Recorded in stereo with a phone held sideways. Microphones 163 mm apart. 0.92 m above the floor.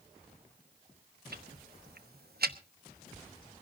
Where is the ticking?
70° right (ahead or behind), 0.9 m.